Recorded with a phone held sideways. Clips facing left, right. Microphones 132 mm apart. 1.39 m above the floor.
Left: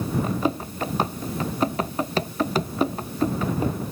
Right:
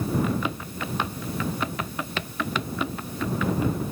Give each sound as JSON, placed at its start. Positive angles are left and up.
{"t": 0.2, "sound": "running footsteps", "side_deg": 35}